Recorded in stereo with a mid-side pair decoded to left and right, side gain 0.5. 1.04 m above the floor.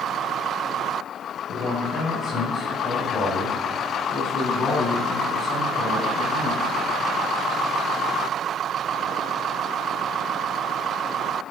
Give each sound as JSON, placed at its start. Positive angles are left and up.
{"t": 1.5, "sound": "a man speaking", "azimuth_deg": 60, "distance_m": 6.0}